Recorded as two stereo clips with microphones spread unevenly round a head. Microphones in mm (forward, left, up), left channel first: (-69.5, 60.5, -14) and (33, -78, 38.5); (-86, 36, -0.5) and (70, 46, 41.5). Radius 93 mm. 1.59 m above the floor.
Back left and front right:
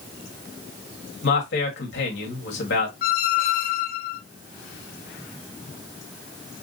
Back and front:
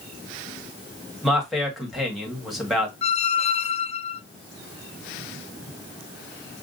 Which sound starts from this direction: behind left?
A squeak, at 3.0 s.